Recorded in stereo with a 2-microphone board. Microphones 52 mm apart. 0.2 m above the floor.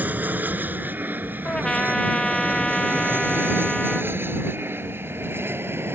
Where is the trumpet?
15° left (ahead or behind).